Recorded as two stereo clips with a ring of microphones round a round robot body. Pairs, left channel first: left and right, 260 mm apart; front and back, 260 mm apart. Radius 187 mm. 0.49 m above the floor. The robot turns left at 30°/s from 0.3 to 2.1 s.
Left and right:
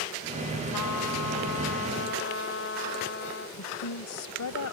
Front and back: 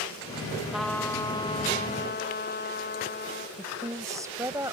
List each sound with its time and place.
0.7 s a trumpet: 90° left; by 3.5 s 50° left
3.6 s a woman speaking: 100° left